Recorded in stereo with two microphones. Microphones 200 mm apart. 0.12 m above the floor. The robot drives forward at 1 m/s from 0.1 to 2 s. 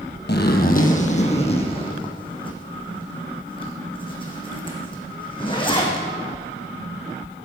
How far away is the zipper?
About 1.3 m.